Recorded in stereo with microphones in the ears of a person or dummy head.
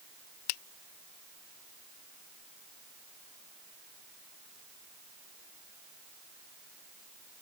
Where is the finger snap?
80° left.